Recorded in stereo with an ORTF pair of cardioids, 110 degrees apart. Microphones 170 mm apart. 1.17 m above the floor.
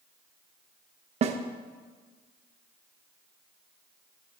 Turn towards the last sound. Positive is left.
turn(degrees=-40)